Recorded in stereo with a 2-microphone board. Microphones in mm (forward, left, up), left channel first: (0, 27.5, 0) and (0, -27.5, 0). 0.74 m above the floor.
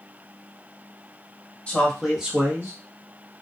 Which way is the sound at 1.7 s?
20° left (ahead or behind).